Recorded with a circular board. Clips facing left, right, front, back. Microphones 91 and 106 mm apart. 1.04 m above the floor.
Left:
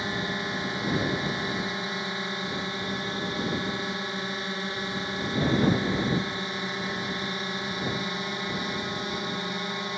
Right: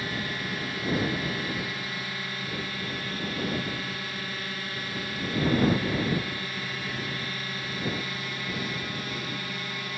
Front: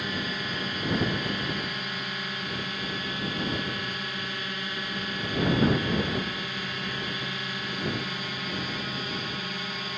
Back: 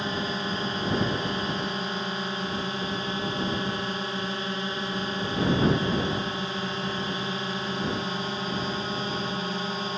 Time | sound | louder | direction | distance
0.0 | a drone | left 2 dB, back 3 dB | 140° left | ?